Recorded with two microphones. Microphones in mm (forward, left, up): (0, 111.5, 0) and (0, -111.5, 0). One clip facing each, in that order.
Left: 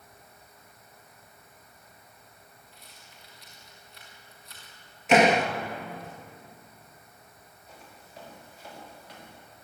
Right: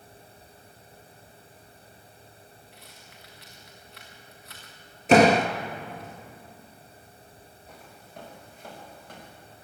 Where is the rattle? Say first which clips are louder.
Right 4 dB; 65° right (ahead or behind), 5 m.